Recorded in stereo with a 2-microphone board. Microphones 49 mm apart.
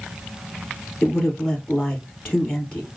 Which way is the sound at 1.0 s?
15° left (ahead or behind).